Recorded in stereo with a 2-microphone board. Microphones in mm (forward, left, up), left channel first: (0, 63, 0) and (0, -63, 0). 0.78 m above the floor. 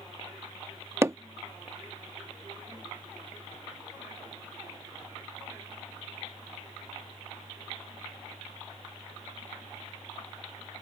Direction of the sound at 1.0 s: 20° right (ahead or behind).